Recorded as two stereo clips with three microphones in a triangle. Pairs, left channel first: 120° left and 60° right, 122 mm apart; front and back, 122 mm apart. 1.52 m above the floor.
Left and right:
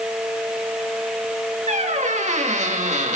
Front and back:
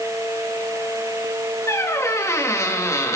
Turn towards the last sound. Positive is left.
turn(degrees=-65)